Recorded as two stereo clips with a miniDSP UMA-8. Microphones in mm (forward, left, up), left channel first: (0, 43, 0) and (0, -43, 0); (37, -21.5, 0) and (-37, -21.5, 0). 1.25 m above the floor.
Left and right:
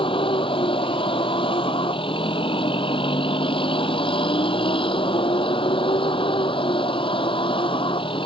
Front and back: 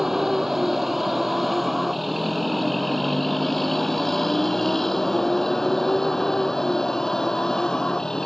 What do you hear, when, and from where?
0.0 s a vehicle: 95° left; by 8.3 s 80° left